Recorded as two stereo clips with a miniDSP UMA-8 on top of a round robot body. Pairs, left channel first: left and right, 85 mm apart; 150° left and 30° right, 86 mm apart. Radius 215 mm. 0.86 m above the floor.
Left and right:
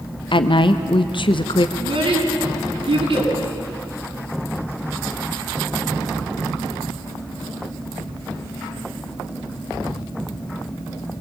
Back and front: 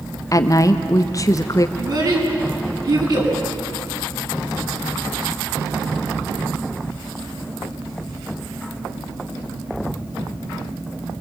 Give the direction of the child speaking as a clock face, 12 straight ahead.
2 o'clock.